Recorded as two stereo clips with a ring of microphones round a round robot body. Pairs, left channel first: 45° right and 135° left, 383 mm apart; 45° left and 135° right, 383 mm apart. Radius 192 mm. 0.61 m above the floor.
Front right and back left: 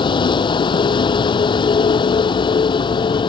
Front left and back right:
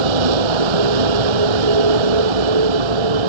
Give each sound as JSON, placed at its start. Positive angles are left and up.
{"t": 0.0, "sound": "a vehicle", "azimuth_deg": -125}